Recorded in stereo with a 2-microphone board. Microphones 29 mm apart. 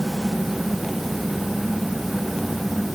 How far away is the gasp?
No gasp in this recording.